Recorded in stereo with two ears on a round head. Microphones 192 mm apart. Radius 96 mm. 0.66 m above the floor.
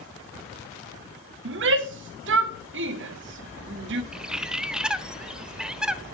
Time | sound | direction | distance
1.4 | a shout | 60° right (ahead or behind) | 1.3 m
4.1 | a bird | 5° right (ahead or behind) | 0.5 m